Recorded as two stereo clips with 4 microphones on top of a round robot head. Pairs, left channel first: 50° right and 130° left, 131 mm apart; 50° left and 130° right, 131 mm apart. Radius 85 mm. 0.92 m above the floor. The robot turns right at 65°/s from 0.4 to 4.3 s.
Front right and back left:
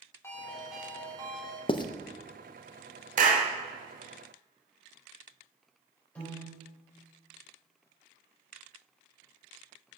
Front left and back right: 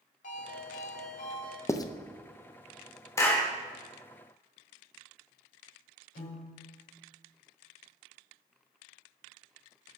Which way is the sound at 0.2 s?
20° left.